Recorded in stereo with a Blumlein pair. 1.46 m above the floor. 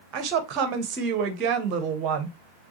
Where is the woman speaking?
35° right, 1.2 m.